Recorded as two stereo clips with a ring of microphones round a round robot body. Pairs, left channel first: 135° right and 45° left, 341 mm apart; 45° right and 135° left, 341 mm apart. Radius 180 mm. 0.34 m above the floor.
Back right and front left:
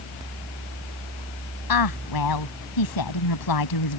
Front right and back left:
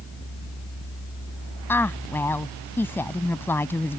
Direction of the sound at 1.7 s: 130° right.